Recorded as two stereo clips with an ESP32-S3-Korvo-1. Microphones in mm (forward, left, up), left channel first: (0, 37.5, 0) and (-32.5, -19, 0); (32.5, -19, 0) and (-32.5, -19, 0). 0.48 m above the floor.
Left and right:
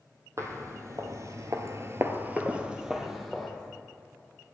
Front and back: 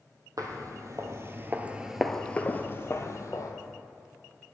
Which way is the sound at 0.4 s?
160° right.